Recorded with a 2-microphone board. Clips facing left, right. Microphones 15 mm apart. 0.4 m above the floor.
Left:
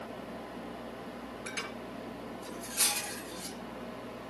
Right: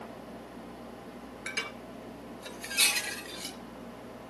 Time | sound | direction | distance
1.5 | dishes clattering | 85° right | 4.5 m